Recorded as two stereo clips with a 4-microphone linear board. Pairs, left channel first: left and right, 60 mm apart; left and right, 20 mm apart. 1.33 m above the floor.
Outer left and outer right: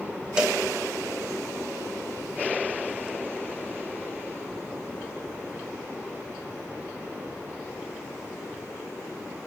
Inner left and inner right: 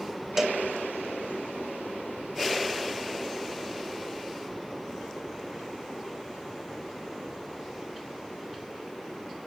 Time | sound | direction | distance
0.4 | a cowbell | 15° right (ahead or behind) | 0.8 m